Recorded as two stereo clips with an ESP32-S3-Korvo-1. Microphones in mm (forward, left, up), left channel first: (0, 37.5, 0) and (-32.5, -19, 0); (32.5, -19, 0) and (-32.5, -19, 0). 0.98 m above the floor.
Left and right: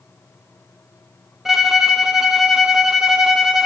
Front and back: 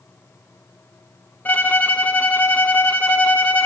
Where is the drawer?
No drawer in this recording.